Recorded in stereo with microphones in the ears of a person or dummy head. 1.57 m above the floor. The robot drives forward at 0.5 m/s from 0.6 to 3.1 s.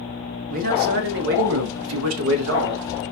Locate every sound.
0.5 s a man speaking: 45° right (ahead or behind), 0.9 m; by 2.9 s 55° right (ahead or behind), 0.8 m